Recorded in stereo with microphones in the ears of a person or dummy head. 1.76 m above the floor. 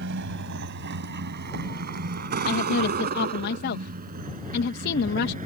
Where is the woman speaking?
60° left (ahead or behind).